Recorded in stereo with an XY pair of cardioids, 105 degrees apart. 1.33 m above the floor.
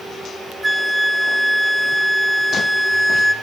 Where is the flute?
15° right, 0.7 m.